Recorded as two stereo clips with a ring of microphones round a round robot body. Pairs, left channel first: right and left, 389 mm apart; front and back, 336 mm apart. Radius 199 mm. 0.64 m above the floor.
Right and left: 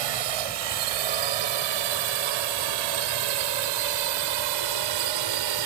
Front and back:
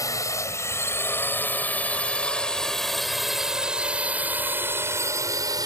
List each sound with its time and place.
0.0 s a drone: 80° left; by 5.7 s 105° left